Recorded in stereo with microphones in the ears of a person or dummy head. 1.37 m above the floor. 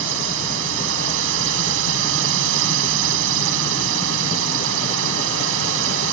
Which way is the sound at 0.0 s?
75° right (ahead or behind).